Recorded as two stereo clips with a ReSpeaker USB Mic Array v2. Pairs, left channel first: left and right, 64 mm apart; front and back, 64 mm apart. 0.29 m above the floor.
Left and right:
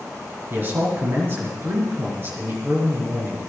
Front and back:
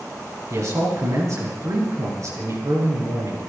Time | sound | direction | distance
0.5 | a man speaking | 145° right | 5 m